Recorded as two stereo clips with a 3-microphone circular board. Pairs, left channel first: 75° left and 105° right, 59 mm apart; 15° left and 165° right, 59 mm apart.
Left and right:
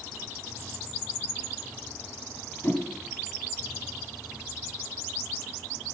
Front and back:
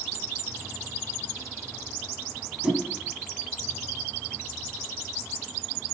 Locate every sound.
2.6 s a whoosh: 120° left, 1.4 m